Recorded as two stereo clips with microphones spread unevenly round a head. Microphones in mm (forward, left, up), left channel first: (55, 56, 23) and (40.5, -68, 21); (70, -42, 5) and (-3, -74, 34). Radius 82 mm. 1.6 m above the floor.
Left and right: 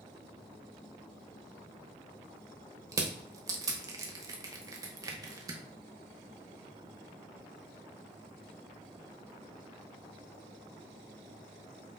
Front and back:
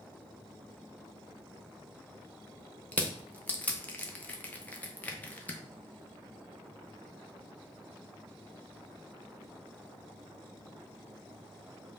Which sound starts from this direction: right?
Crushing, at 2.9 s.